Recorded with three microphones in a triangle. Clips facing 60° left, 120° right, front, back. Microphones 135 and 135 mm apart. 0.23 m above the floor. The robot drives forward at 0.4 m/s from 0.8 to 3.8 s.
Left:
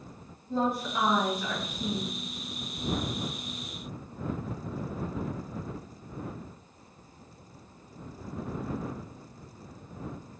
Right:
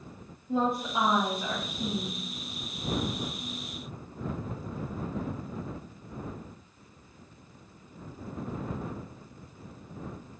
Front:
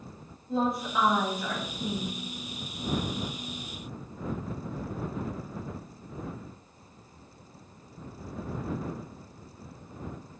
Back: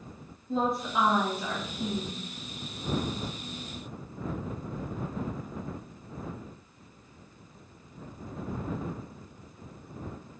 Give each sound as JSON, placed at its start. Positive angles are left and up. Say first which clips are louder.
{"t": 0.5, "sound": "a woman speaking", "louder": "right 1 dB, even", "azimuth_deg": -85, "distance_m": 1.1}